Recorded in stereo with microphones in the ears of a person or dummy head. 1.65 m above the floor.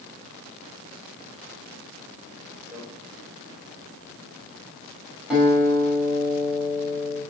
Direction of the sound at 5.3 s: 5° right (ahead or behind).